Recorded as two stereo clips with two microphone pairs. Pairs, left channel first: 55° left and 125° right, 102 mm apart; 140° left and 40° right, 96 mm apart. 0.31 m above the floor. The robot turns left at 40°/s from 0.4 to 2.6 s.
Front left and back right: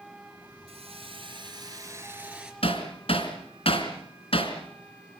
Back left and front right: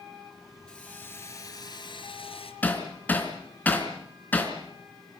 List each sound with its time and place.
0.7 s a hiss: 135° right, 3.5 m; by 2.5 s 150° left, 3.5 m
2.6 s hammering: 70° left, 3.5 m